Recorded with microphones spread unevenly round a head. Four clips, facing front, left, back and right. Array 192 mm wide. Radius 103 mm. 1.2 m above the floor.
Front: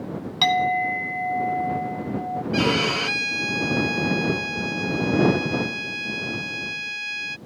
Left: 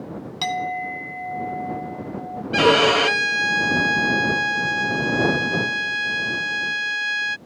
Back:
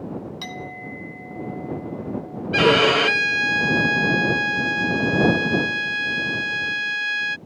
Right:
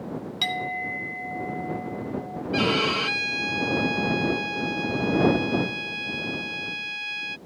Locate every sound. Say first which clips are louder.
0.4 s a clink: left 6 dB, front 13 dB; 20° left
2.5 s a violin: left 8 dB, back 7 dB; 125° left